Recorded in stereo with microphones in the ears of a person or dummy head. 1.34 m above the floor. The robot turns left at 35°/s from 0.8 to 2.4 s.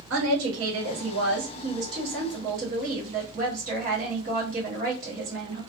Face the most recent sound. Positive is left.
turn(degrees=-135)